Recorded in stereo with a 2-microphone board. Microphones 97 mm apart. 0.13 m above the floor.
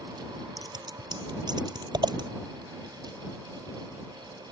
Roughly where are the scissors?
Right.